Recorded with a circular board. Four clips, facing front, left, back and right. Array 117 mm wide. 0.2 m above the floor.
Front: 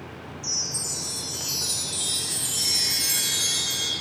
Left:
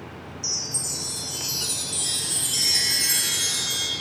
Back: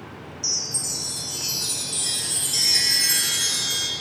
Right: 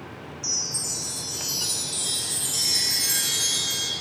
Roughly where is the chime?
Behind.